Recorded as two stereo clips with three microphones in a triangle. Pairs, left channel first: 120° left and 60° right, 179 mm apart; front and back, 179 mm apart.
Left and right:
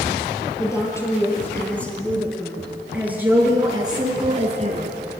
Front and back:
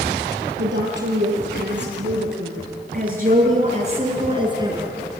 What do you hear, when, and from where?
0.6 s a woman speaking: 165° right, 6.5 m; by 5.0 s 105° right, 3.5 m